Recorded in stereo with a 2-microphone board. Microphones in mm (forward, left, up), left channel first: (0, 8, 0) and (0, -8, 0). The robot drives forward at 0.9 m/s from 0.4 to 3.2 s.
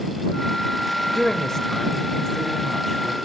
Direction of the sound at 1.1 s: 30° left (ahead or behind).